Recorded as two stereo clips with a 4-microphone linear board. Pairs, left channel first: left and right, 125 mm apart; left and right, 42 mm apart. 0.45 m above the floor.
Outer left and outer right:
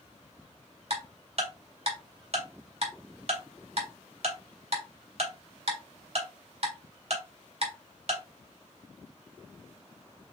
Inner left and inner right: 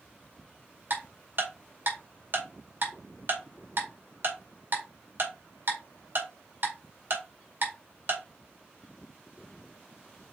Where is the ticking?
55° right (ahead or behind), 2.0 m.